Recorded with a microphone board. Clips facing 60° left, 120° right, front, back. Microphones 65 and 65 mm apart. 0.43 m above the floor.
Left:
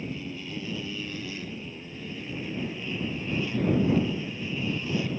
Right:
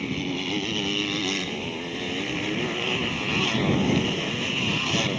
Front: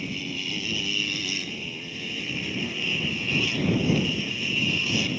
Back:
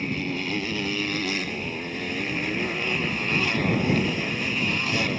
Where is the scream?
No scream in this recording.